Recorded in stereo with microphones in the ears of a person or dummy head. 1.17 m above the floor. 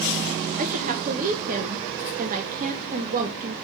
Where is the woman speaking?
40° right (ahead or behind), 0.8 m.